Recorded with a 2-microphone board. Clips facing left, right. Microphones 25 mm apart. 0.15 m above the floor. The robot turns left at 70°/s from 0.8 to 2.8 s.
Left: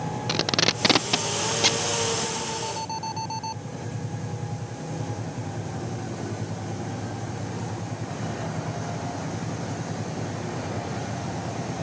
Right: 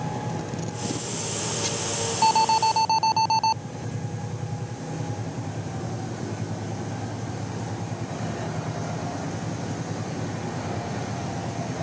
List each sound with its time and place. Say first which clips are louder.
0.3 s tape being pulled: left 9 dB; 75° left (ahead or behind); by 1.9 s 30° left (ahead or behind)
2.2 s an alarm: right 11 dB; 95° right; by 3.6 s 140° right